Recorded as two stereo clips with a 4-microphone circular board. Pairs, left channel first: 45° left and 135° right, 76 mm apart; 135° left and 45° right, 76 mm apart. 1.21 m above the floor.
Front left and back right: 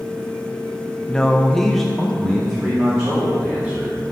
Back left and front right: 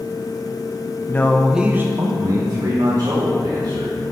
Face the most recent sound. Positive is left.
turn(degrees=-50)